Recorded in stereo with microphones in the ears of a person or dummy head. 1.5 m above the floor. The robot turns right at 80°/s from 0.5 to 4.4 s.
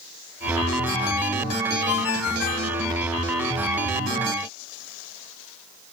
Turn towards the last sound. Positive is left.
turn(degrees=-75)